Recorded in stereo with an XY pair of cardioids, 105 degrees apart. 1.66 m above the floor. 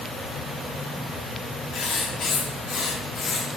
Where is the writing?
70° left, 1.1 m.